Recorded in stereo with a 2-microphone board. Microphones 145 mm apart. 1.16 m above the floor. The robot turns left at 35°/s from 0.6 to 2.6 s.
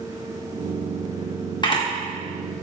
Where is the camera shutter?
35° left (ahead or behind), 1.3 m; by 1.8 s 40° left (ahead or behind), 1.3 m.